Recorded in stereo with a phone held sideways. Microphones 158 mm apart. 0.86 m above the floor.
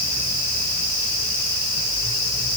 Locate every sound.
Only background noise.